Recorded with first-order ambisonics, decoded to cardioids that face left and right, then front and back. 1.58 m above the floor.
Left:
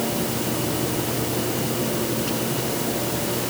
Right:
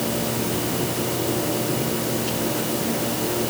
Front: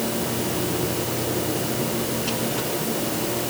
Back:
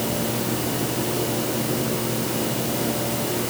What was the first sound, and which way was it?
Only background noise.